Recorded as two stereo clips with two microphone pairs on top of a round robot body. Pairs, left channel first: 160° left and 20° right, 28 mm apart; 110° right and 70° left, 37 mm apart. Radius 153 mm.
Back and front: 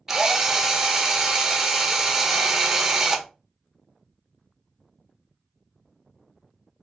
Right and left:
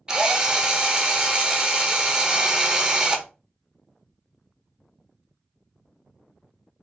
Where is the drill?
45° left, 1.0 m.